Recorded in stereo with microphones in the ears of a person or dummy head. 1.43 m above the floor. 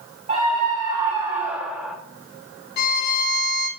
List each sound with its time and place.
0.3 s a scream: 30° right (ahead or behind), 2.5 m; by 2.0 s 5° left (ahead or behind), 1.4 m
2.8 s a violin: 55° left (ahead or behind), 5.5 m